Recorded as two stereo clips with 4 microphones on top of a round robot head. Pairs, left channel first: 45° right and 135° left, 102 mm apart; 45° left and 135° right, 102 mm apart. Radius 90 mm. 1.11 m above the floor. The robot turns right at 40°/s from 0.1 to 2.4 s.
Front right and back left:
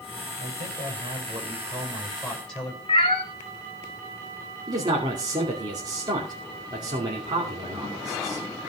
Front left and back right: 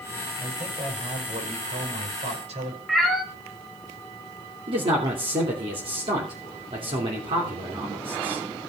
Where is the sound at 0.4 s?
155° left, 5 m; by 2.8 s 125° right, 5 m.